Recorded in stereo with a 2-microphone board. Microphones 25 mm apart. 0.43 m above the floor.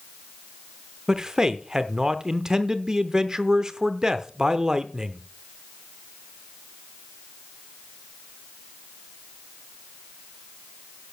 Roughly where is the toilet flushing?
I don't hear a toilet flushing.